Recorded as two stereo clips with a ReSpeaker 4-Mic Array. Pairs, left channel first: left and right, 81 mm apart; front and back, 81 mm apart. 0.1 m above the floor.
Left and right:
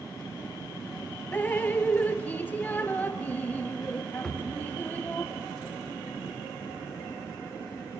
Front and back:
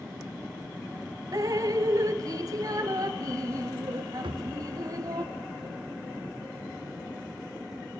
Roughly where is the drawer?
Behind.